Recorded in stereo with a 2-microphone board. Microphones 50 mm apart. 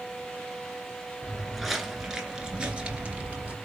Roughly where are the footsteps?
Centre.